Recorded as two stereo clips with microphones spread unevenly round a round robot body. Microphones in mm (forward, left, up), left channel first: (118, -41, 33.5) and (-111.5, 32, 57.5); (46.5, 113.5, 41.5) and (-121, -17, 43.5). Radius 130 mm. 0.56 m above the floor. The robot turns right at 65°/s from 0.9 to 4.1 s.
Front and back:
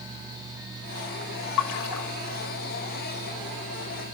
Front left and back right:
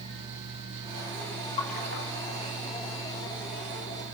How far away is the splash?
About 1.0 m.